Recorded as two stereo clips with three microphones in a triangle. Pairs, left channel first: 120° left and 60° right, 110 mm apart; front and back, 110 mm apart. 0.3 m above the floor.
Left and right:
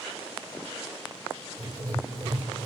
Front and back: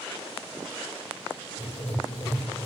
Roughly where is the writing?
Ahead.